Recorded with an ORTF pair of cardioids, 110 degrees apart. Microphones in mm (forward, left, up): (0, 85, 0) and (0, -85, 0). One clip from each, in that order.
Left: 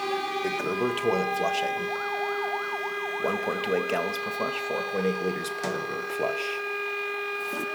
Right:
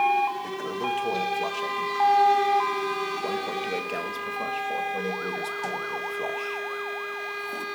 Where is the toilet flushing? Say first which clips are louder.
Left 2 dB; 30° left, 1.5 m.